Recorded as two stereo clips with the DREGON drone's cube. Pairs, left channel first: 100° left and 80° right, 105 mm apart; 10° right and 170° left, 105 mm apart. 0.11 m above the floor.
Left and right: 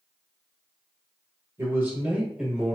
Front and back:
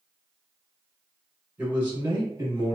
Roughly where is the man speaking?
Behind right.